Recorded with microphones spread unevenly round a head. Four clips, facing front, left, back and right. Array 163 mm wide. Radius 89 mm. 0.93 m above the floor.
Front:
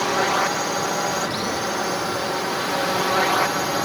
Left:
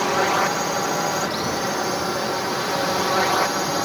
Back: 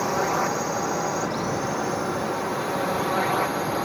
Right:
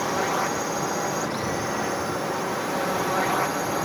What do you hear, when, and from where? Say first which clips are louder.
0.0 s a drone: left 5 dB, front 3 dB; 60° left; by 3.9 s 40° left